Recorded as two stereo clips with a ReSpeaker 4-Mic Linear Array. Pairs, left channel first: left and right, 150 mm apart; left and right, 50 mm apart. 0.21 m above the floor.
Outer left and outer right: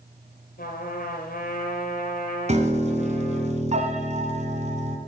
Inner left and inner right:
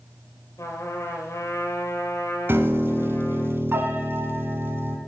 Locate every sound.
0.6 s a trumpet: 75° left (ahead or behind), 3 m
2.5 s a piano: 50° right (ahead or behind), 2.5 m